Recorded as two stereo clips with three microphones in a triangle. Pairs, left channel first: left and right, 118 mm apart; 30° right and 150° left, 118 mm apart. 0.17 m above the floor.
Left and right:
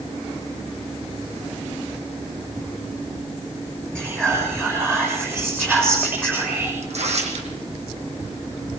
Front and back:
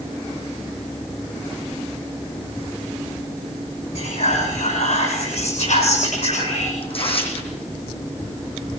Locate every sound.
4.0 s whispering: 15° right, 7 m
6.8 s tearing paper: 65° right, 7 m